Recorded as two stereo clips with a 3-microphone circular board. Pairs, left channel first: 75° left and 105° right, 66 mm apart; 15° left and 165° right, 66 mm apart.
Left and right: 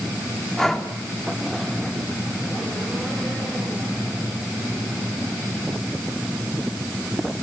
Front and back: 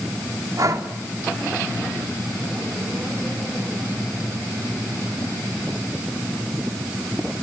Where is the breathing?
160° left, 3 m.